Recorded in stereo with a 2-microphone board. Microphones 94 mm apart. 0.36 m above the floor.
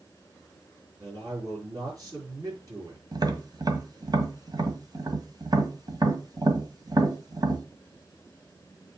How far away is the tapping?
About 1.6 m.